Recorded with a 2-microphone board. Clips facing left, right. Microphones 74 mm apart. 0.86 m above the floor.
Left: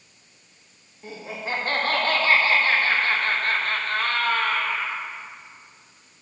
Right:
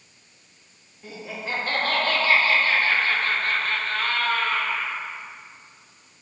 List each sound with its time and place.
1.0 s laughter: 30° left (ahead or behind), 1.9 m